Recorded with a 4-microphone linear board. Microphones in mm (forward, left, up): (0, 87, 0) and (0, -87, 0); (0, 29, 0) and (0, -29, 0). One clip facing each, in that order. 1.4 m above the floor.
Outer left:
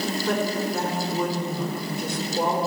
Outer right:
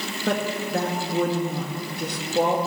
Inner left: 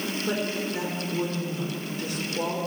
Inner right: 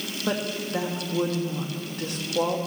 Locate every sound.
0.3 s a woman speaking: 85° right, 2 m